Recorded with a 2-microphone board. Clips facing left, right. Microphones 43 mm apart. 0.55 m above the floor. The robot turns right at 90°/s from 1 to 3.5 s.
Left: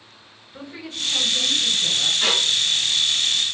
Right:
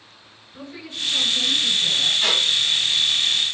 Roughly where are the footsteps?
No footsteps in this recording.